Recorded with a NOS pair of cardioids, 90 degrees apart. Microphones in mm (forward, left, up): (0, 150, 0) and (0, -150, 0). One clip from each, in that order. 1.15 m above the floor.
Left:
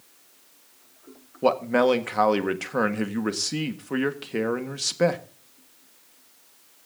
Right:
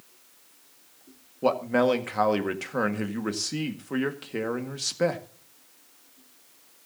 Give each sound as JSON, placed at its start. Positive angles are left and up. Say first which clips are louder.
{"t": 1.4, "sound": "a man speaking", "louder": "left 2 dB", "azimuth_deg": 15, "distance_m": 1.6}